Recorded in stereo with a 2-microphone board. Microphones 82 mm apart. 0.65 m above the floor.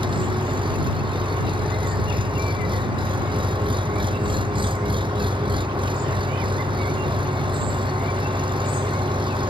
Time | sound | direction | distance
0.0 | an engine running | 85° right | ?